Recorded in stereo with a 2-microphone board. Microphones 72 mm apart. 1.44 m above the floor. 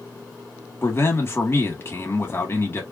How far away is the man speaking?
About 1.7 m.